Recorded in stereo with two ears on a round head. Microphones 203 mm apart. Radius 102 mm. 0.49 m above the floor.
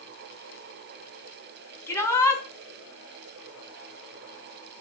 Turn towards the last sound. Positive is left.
turn(degrees=10)  # may be behind; listen again after turning